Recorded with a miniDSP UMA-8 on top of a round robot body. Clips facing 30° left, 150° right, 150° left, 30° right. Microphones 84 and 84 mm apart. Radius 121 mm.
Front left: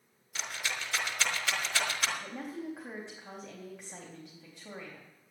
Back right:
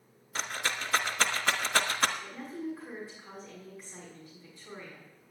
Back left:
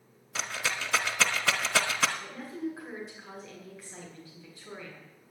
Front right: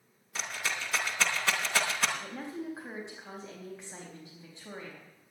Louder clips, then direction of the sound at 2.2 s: Back right 1 dB, back left 2 dB; 40° left.